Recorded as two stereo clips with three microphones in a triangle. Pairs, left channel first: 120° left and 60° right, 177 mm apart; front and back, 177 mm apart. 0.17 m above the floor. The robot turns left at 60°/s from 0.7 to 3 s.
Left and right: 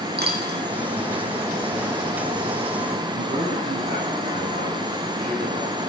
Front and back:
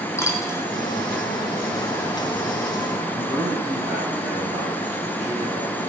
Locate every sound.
0.2 s a dropped coin: 75° right, 2.5 m
3.1 s a man speaking: 110° right, 8.5 m